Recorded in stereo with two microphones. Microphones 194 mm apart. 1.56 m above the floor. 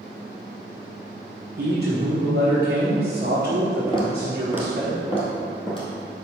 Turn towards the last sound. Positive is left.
turn(degrees=25)  # may be behind; listen again after turning